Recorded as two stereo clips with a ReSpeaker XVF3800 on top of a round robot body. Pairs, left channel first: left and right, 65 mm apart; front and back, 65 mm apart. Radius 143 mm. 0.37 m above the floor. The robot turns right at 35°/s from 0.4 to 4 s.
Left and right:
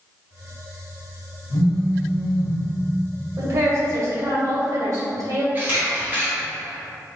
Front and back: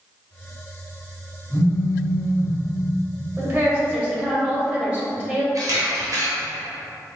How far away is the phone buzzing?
About 1.4 m.